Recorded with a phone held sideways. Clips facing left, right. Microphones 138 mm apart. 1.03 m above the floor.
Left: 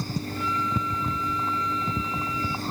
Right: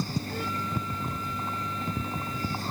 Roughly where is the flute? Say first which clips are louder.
Left 4 dB; right.